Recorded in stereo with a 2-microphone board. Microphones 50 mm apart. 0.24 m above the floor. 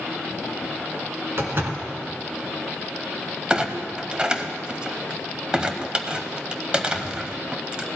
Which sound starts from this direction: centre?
A clunk, at 3.5 s.